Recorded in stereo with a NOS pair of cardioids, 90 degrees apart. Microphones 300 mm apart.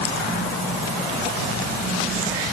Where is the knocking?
No knocking in this recording.